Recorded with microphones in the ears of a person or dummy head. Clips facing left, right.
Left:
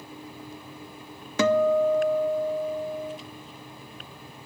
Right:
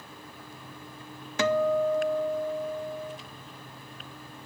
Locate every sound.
1.4 s a guitar: 70° left (ahead or behind), 0.7 m